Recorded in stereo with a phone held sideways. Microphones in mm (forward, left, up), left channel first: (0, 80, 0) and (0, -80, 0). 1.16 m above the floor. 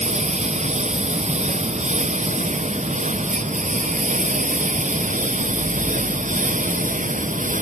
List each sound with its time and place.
0.0 s a lawn mower: 45° right (ahead or behind); by 7.6 s 55° right (ahead or behind)